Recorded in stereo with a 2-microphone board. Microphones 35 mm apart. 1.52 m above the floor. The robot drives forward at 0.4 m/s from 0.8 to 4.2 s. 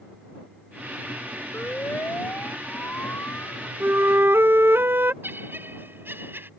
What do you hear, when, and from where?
1.5 s a siren: 90° left; by 3.7 s 85° left
3.8 s a flute: 70° right (ahead or behind); by 5.1 s 80° right
5.2 s laughter: 70° right (ahead or behind)